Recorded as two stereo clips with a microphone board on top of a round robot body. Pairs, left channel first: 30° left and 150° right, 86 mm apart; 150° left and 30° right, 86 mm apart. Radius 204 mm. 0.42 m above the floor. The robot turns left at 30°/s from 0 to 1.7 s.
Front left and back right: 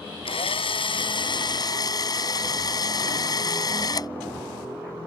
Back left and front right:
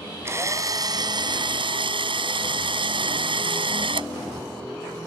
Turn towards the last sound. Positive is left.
turn(degrees=-15)